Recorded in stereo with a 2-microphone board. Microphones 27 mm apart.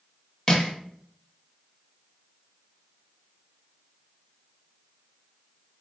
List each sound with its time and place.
0.5 s crushing: 20° left (ahead or behind), 0.6 m